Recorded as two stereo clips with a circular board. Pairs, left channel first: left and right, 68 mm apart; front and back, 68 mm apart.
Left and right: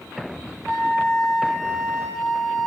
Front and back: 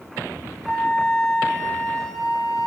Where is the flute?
80° left, 1.8 m.